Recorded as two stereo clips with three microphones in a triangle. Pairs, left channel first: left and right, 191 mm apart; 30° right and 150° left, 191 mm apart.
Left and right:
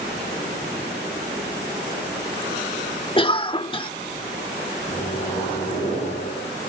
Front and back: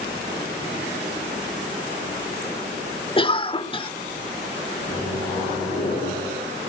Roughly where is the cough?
Ahead left.